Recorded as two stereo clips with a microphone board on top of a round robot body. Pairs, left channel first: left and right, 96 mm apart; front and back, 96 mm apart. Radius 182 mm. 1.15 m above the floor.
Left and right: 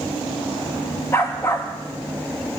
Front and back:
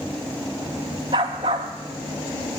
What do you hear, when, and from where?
1.1 s a dog barking: 160° left, 0.5 m